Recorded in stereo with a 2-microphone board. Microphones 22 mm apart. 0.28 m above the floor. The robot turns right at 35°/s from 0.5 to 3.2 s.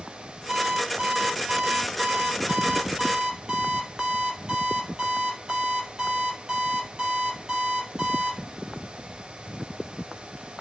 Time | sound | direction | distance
0.5 | an alarm clock | 135° right | 4 m